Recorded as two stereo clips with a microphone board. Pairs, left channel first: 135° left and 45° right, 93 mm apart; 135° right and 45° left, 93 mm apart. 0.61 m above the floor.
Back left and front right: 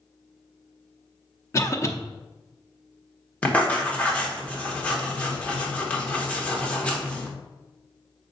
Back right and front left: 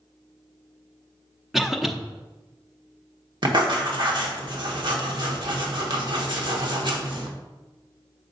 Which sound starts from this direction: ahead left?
Writing, at 3.4 s.